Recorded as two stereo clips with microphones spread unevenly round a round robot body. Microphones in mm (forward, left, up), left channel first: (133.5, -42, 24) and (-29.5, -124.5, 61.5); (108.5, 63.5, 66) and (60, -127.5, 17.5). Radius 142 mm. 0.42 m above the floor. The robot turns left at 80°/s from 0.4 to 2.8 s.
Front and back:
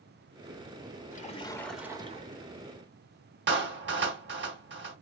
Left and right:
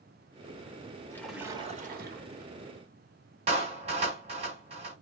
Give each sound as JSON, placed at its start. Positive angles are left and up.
{"t": 1.1, "sound": "a splash", "azimuth_deg": -5, "distance_m": 1.6}
{"t": 3.5, "sound": "a clap", "azimuth_deg": -140, "distance_m": 1.4}